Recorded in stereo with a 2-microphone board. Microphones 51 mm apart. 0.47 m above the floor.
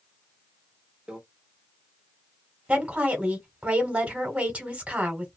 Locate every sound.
1.1 s a microwave: 15° right (ahead or behind), 0.8 m
2.7 s a woman speaking: 25° right (ahead or behind), 1.2 m